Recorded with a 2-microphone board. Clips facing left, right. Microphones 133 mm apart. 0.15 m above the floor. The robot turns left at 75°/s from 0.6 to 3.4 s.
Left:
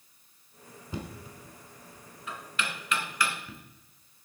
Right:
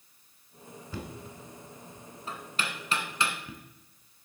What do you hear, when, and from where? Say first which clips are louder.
0.9 s knocking: left 1 dB; 20° left (ahead or behind), 1.1 m; by 3.6 s 15° right (ahead or behind), 1.1 m